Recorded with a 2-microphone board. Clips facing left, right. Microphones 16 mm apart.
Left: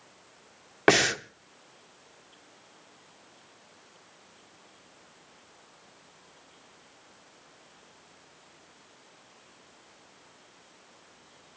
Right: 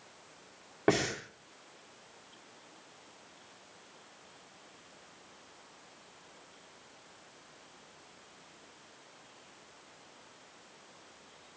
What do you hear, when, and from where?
0.9 s breathing: 75° left (ahead or behind), 1.1 m